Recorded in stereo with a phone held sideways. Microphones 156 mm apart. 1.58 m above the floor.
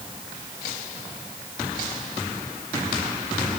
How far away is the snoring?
I don't hear snoring.